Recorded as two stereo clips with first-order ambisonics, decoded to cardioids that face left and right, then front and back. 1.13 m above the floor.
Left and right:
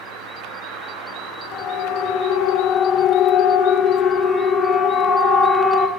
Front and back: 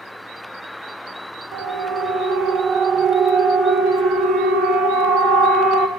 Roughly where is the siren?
Behind left.